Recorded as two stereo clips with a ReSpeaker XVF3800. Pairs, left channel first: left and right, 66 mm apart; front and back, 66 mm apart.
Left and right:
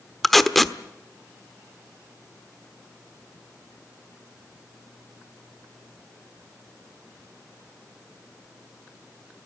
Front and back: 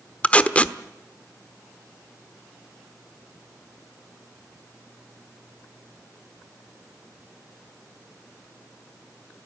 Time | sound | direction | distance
0.2 | tape being pulled | 5° left | 1.1 m